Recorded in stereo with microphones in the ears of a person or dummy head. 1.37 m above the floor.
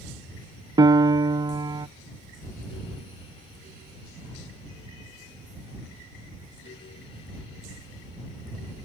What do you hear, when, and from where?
0.8 s a piano: 30° right (ahead or behind)